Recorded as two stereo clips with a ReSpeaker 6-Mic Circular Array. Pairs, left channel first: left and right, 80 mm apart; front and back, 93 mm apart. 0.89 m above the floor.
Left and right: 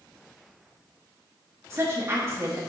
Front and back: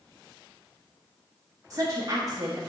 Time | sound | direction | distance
1.7 | a woman speaking | 140° right | 1.0 m